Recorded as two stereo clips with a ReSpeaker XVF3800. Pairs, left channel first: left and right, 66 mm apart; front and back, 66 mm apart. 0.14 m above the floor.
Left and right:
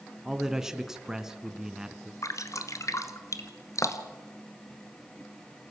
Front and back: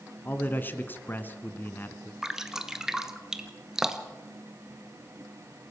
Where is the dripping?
100° left, 1.4 m.